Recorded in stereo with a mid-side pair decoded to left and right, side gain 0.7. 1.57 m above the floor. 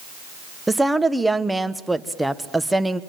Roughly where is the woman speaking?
Ahead.